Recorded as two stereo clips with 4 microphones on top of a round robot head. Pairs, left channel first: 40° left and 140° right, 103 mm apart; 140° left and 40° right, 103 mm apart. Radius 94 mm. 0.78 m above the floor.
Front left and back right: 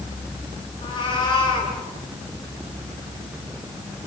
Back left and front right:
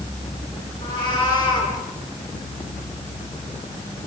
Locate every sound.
0.8 s a cat meowing: 90° left, 5.5 m